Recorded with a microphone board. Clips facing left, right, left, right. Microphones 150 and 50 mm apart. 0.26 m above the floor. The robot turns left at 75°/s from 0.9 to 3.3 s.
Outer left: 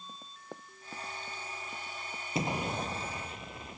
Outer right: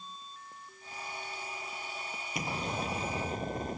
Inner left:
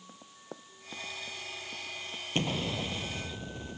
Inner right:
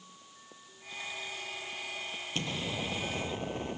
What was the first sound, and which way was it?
Running footsteps, 75° left (ahead or behind).